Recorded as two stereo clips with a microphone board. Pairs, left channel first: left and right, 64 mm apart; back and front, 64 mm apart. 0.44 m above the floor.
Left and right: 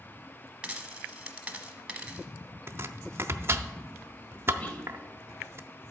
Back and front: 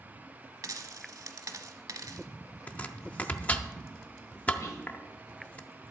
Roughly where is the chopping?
Behind right.